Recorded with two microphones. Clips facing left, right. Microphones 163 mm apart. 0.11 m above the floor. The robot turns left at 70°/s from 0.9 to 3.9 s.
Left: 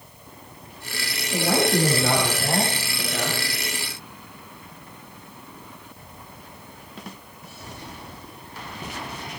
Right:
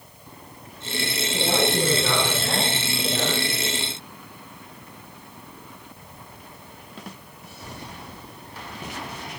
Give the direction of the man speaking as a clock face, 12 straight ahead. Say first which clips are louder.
Left 2 dB; 8 o'clock.